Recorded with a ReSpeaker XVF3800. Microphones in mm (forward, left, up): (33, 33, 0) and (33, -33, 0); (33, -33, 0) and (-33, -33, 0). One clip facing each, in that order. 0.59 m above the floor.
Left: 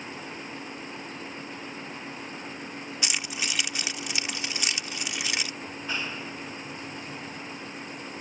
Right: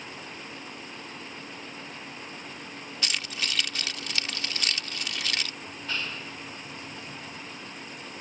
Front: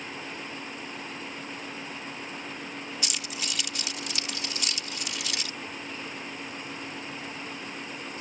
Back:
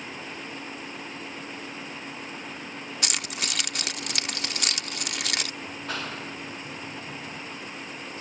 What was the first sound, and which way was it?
Keys jangling, 165° left.